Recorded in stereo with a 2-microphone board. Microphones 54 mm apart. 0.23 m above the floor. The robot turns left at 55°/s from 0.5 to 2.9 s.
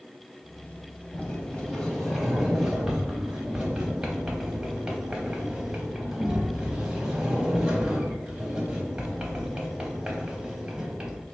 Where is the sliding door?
20° left (ahead or behind), 0.7 m; by 11.2 s 15° right (ahead or behind), 0.7 m.